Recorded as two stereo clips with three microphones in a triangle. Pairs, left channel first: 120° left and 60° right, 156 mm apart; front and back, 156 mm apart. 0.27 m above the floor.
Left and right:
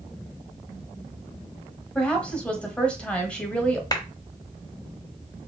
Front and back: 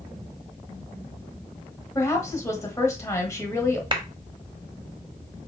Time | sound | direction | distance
1.9 | a woman speaking | 45° left | 1.3 m
3.9 | a clap | 160° left | 0.9 m